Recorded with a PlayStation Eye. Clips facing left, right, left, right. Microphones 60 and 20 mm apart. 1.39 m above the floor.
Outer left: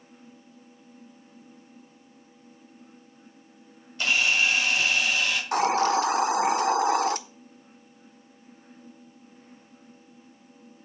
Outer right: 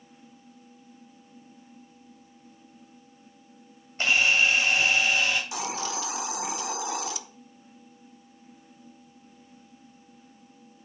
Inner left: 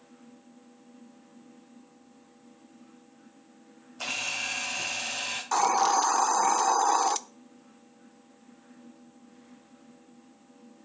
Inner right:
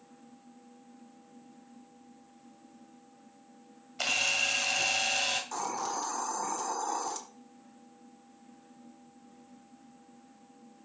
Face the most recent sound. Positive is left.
turn(degrees=50)  # may be behind; listen again after turning